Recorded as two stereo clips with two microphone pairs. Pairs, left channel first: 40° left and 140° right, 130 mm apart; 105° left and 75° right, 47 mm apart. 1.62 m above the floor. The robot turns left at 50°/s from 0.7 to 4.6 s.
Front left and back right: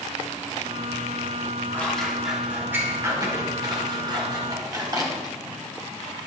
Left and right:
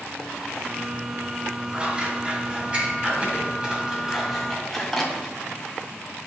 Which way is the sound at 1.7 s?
25° right.